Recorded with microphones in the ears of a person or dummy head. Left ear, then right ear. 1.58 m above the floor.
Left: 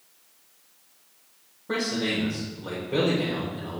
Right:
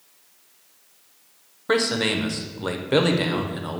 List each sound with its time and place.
1.7 s a man speaking: 60° right (ahead or behind), 0.8 m